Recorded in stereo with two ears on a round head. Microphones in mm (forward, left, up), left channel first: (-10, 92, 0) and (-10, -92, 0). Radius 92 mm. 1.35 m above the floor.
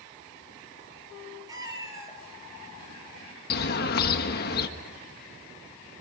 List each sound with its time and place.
1.5 s a cat meowing: 20° right (ahead or behind), 6 m; by 3.4 s 10° right (ahead or behind), 4 m
3.5 s a bird: 45° left (ahead or behind), 1.4 m